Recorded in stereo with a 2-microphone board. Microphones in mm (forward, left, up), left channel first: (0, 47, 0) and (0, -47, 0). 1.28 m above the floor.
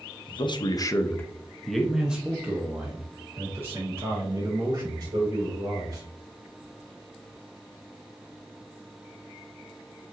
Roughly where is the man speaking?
Left.